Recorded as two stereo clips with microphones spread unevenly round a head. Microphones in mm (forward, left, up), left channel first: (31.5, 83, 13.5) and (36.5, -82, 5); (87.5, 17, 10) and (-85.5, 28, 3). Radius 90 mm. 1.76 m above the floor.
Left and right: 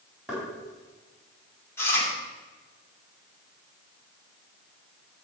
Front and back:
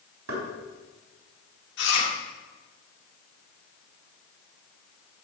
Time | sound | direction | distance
0.3 | knocking | 175° right | 4 m
1.8 | chewing | 15° left | 3 m